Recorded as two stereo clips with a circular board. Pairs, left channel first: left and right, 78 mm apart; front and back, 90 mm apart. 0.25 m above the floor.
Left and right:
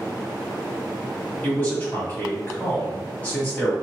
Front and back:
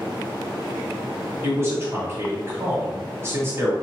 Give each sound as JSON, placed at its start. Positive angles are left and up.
{"t": 1.4, "sound": "a man speaking", "azimuth_deg": 140, "distance_m": 1.5}